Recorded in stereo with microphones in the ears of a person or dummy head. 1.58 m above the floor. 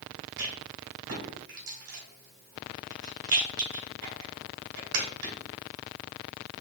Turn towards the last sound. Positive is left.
turn(degrees=-65)  # may be behind; listen again after turning